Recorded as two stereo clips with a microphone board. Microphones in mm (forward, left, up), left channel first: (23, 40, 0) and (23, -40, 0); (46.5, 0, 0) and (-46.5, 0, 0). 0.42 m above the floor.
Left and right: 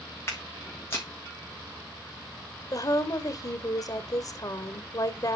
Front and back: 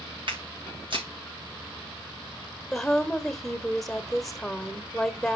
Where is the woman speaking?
85° left, 1.7 m.